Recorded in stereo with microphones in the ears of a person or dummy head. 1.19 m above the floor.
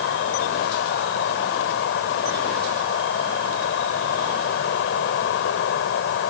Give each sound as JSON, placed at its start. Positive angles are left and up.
{"t": 0.0, "sound": "an insect", "side_deg": 70}